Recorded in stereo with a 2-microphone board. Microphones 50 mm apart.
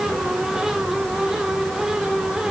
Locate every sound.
Only background noise.